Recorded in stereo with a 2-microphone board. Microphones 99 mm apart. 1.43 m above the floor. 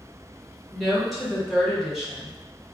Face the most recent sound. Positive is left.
turn(degrees=0)  # may be behind; listen again after turning